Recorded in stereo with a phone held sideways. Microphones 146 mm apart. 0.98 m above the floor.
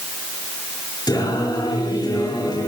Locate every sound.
1.1 s singing: 30° left (ahead or behind), 4.5 m